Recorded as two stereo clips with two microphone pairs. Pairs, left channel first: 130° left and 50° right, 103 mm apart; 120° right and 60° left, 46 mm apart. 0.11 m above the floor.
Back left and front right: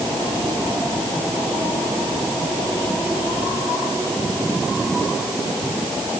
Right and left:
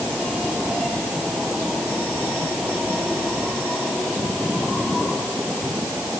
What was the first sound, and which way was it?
Only background noise.